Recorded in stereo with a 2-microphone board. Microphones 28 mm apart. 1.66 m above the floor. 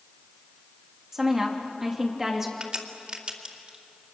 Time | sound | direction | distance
1.1 | a woman speaking | 15° right (ahead or behind) | 3 m
2.6 | a crack | 35° right (ahead or behind) | 2.5 m